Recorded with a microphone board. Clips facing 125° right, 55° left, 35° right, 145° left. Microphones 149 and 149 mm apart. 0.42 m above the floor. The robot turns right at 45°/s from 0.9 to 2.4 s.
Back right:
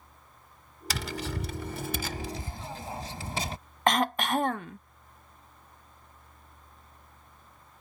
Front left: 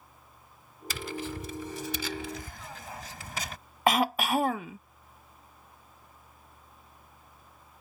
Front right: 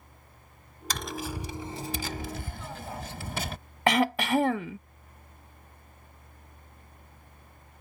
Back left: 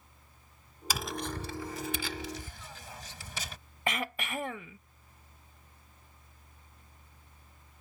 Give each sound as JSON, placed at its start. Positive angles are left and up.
{"t": 0.9, "sound": "tapping", "azimuth_deg": -135}
{"t": 3.9, "sound": "throat clearing", "azimuth_deg": -30}